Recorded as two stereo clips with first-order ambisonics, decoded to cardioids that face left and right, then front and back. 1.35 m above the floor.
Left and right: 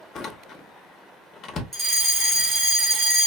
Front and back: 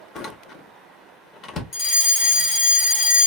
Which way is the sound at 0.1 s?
45° left.